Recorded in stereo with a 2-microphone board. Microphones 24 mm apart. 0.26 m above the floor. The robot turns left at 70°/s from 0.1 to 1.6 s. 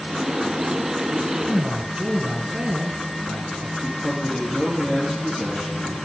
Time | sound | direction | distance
1.4 | a man speaking | 25° right (ahead or behind) | 1.5 m
3.8 | a man speaking | 40° left (ahead or behind) | 4.5 m